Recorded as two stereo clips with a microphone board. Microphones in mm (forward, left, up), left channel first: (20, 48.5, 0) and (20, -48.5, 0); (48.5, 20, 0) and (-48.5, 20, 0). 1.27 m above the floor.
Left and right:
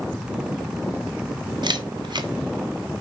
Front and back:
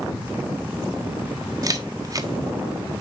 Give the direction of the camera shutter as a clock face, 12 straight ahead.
4 o'clock.